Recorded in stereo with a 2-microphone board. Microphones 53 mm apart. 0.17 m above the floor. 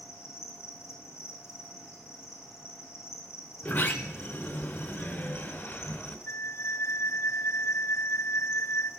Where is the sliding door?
40° left (ahead or behind), 2 m.